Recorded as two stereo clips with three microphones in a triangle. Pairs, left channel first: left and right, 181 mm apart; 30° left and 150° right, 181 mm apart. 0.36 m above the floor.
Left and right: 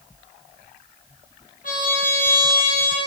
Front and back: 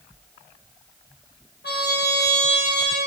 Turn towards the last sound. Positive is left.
turn(degrees=50)